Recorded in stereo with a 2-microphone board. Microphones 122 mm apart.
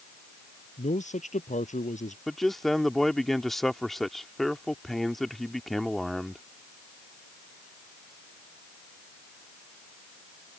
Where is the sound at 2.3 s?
Centre (ahead or behind).